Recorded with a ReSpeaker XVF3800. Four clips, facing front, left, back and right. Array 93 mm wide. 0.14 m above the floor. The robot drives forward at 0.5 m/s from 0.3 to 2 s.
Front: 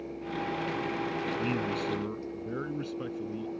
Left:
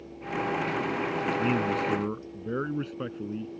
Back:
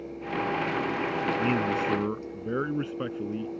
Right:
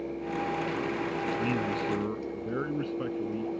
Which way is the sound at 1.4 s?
155° left.